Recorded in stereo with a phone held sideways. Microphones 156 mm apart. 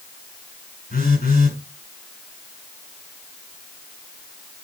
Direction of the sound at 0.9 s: 60° left (ahead or behind).